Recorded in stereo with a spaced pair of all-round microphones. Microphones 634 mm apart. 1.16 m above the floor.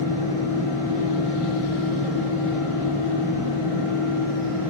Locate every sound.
0.0 s a fan: 50° right (ahead or behind), 2 m